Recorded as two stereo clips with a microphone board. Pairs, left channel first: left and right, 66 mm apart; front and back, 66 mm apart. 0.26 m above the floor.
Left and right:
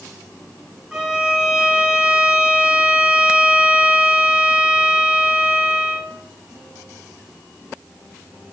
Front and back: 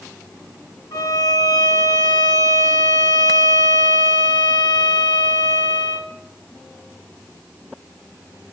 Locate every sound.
0.9 s a violin: 10° right, 5 m